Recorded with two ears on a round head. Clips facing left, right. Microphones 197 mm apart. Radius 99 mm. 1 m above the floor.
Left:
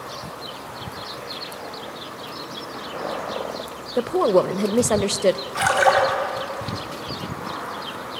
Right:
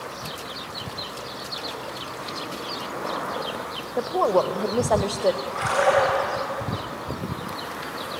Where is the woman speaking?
30° left (ahead or behind), 0.6 m.